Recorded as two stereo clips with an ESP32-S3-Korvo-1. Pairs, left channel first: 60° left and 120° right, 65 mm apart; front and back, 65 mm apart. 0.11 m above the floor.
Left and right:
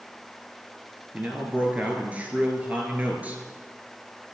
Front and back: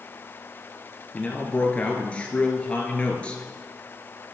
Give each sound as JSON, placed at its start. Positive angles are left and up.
{"t": 1.1, "sound": "a man speaking", "azimuth_deg": -65, "distance_m": 1.7}